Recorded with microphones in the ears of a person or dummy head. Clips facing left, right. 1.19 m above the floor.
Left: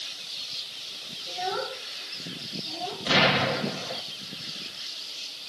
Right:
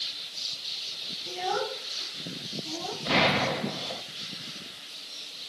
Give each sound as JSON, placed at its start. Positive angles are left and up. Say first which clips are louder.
{"t": 1.3, "sound": "a child speaking", "louder": "right 1 dB", "side_deg": -75, "distance_m": 3.5}
{"t": 3.1, "sound": "an explosion", "louder": "left 1 dB", "side_deg": 5, "distance_m": 1.4}